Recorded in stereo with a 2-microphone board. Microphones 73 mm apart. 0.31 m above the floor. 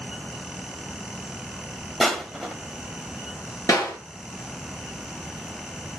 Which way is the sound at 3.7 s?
50° left (ahead or behind).